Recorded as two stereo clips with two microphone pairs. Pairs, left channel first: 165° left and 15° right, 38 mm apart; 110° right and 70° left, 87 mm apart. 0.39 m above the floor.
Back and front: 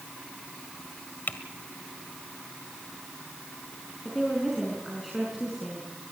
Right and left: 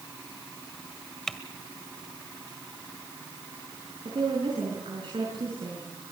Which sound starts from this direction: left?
A woman speaking, at 4.0 s.